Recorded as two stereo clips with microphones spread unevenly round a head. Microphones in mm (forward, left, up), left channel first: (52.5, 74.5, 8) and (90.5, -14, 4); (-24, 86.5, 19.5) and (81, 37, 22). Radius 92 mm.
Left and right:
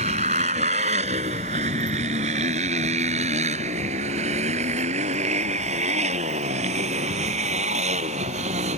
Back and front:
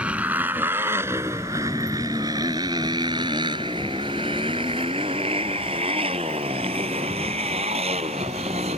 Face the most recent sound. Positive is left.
turn(degrees=-85)